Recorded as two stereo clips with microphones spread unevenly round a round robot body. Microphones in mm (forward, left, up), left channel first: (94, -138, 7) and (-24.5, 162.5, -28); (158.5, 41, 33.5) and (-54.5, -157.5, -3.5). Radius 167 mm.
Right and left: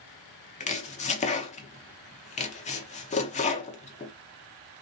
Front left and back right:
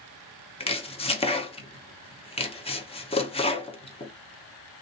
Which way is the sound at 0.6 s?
20° right.